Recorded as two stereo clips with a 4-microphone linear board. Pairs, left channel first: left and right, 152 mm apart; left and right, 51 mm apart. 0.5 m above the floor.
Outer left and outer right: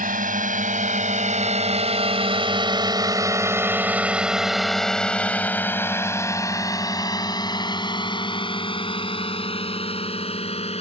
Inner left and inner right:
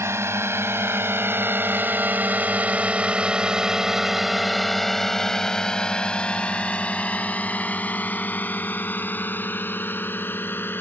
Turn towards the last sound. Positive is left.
turn(degrees=40)  # may be behind; listen again after turning